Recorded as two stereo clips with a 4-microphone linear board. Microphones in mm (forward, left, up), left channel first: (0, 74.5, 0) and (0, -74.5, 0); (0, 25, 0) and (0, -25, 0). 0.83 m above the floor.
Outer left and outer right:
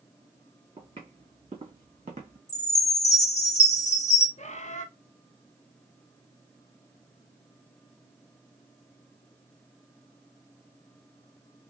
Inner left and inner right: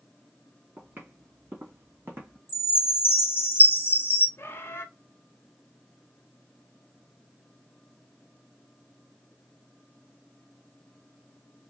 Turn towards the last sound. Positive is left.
turn(degrees=50)  # may be behind; listen again after turning